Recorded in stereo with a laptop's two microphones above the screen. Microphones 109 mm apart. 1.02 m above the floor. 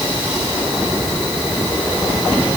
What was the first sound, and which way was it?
Only background noise.